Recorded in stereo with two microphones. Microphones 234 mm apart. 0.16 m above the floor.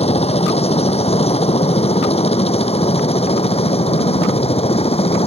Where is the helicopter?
25° left (ahead or behind).